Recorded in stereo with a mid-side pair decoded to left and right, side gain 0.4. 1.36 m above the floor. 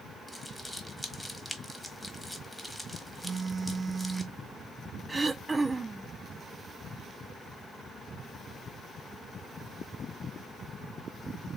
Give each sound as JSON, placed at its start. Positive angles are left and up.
{"t": 0.3, "sound": "crumpling", "azimuth_deg": 5, "distance_m": 1.5}
{"t": 3.2, "sound": "a phone buzzing", "azimuth_deg": -45, "distance_m": 0.6}
{"t": 5.1, "sound": "throat clearing", "azimuth_deg": -25, "distance_m": 0.6}